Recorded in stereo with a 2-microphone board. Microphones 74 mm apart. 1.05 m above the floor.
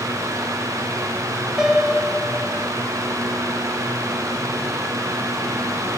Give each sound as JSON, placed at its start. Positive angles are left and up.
{"t": 1.6, "sound": "a piano", "side_deg": -5, "distance_m": 1.3}